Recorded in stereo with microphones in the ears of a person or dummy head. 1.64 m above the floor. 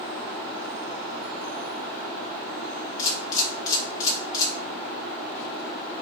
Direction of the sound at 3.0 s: 30° left (ahead or behind).